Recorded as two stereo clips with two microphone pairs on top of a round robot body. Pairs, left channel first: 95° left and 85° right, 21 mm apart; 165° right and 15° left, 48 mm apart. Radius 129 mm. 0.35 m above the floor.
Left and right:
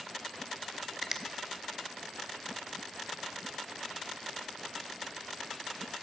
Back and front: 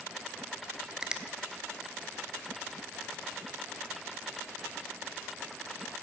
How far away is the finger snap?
About 1.1 m.